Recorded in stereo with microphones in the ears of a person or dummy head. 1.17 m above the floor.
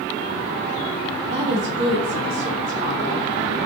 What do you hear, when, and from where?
1.3 s a woman speaking: 40° right (ahead or behind), 0.5 m